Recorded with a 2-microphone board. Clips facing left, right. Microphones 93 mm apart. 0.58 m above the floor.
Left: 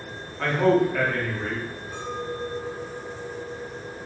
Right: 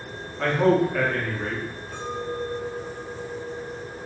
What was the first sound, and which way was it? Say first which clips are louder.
A man speaking: even; centre (ahead or behind).